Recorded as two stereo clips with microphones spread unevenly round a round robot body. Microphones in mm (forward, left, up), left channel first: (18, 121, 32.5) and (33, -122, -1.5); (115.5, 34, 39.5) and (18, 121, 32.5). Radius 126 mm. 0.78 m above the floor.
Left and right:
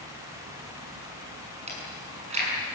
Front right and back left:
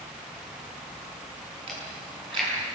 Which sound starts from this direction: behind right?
Chewing, at 1.7 s.